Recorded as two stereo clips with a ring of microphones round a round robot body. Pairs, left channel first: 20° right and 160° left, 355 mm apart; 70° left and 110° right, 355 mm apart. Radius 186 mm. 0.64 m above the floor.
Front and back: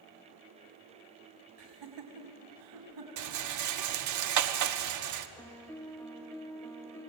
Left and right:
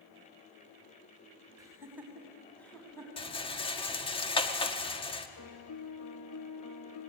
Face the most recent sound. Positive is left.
turn(degrees=60)